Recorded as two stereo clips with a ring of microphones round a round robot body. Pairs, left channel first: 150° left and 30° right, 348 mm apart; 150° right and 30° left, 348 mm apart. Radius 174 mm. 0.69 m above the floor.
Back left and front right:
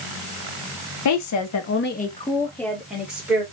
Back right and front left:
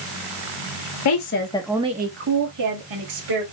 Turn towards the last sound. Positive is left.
turn(degrees=55)